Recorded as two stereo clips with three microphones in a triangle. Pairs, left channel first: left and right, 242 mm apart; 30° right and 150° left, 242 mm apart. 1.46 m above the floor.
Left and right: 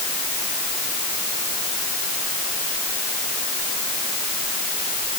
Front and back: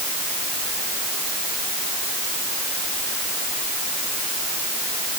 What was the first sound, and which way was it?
Only background noise.